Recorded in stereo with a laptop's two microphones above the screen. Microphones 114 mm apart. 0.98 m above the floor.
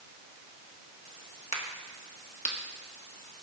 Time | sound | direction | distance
1.5 | a crack | 75° left (ahead or behind) | 1.2 m